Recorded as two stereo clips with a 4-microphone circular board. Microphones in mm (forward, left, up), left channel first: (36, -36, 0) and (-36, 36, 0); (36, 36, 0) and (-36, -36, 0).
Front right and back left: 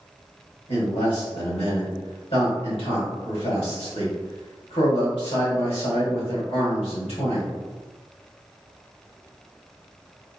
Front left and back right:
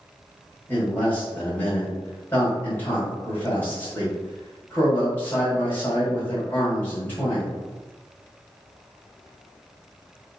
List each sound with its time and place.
0.7 s a man speaking: 25° right, 1.7 m